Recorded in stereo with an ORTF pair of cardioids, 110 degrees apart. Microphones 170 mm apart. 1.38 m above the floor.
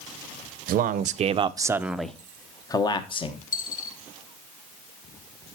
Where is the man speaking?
65° right, 0.9 m; by 3.4 s 35° left, 1.5 m.